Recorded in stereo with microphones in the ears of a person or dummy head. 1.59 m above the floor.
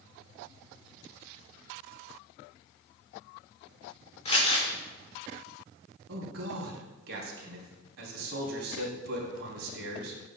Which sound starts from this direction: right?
A man speaking, at 6.1 s.